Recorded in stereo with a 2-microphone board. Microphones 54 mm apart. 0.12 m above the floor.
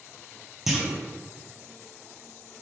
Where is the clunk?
5° right (ahead or behind), 0.6 m.